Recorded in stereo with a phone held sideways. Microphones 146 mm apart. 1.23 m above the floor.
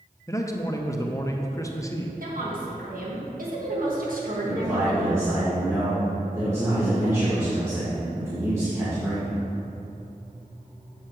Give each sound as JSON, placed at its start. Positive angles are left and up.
{"t": 0.3, "sound": "a man speaking", "side_deg": 20, "distance_m": 0.6}
{"t": 2.2, "sound": "a woman speaking", "side_deg": -75, "distance_m": 1.7}
{"t": 4.4, "sound": "a man speaking", "side_deg": -20, "distance_m": 1.7}